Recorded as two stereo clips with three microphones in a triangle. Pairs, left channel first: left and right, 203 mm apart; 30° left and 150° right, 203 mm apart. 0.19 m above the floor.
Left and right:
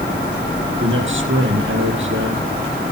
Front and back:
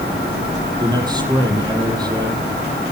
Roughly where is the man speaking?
Right.